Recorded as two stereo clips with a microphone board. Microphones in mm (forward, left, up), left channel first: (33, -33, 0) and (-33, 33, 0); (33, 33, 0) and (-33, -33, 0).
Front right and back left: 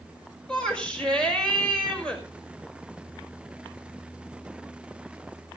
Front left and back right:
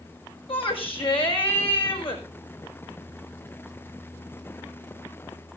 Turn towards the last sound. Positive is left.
turn(degrees=35)